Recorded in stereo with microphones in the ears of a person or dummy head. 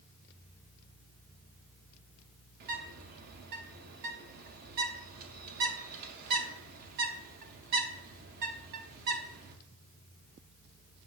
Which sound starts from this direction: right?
A bird, at 2.6 s.